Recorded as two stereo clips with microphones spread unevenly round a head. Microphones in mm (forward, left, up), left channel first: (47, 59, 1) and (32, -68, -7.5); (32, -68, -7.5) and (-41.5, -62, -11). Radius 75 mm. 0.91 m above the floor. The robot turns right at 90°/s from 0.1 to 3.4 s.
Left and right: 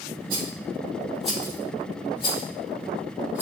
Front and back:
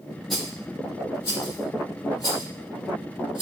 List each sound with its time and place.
0.3 s a rattle: 95° right, 1.9 m; by 3.4 s 175° right, 1.9 m